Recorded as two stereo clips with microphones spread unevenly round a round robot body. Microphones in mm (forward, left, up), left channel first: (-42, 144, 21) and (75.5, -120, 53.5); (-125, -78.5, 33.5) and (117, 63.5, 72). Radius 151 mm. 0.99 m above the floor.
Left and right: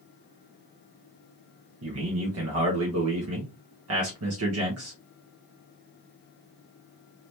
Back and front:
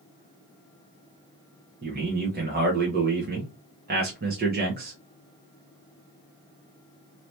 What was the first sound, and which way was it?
A man speaking, 30° right.